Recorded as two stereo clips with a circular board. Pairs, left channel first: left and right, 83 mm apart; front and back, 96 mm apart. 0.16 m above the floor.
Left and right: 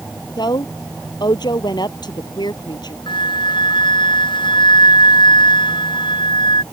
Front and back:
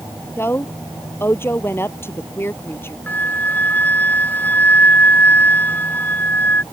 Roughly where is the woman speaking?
Ahead left.